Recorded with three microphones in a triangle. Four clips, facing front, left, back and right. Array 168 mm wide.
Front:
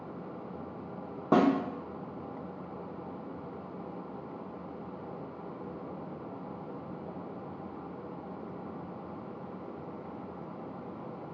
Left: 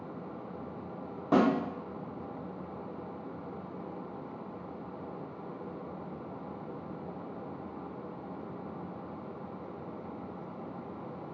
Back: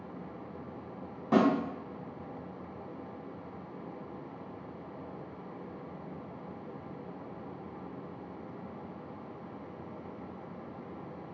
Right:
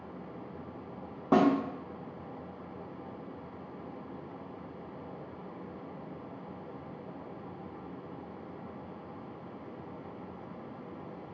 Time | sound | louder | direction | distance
1.3 | a snare drum | right 1 dB, front 1 dB | 30° right | 0.7 m